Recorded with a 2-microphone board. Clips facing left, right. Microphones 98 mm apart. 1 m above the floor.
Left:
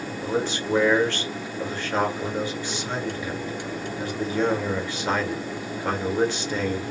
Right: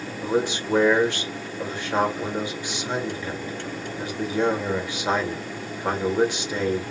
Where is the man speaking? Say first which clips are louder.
Right 2 dB; 15° right (ahead or behind), 1.0 m.